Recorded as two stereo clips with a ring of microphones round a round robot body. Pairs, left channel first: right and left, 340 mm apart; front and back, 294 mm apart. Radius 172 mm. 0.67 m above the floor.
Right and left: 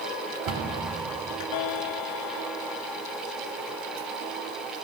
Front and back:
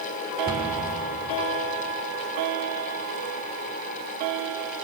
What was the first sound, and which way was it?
A cupboard door, 120° left.